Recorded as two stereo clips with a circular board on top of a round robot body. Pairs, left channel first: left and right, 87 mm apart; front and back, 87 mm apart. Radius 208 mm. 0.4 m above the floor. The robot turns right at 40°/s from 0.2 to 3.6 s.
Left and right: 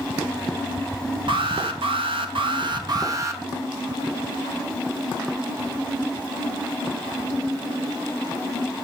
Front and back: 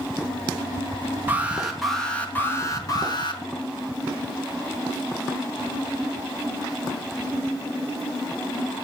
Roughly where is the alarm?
Behind right.